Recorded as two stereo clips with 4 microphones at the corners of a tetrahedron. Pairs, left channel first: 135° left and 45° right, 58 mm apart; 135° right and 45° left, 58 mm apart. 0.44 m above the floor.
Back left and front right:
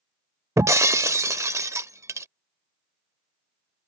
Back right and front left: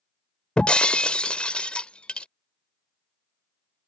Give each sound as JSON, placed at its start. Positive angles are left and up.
{"t": 0.6, "sound": "breaking glass", "azimuth_deg": -65}